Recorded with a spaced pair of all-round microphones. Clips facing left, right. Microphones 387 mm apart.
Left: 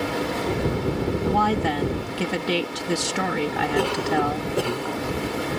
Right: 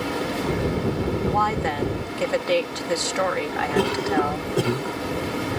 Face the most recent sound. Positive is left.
turn(degrees=-30)  # may be behind; listen again after turning